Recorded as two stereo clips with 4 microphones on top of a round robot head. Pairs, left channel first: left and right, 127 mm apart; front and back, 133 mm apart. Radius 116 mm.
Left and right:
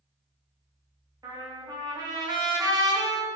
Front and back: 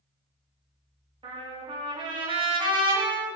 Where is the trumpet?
140° right, 1.6 m.